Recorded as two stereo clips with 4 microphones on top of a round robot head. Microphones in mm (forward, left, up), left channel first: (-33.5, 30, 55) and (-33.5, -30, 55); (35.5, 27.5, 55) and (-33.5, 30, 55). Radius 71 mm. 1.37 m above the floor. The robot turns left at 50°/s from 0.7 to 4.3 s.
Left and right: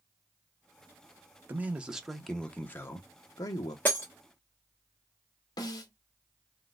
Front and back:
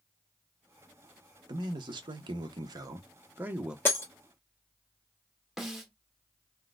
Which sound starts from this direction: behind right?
A man speaking, at 1.5 s.